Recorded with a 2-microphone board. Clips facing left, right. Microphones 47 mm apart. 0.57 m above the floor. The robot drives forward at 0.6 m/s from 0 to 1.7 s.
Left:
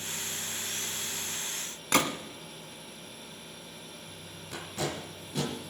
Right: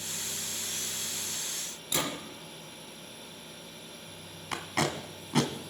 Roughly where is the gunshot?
Left.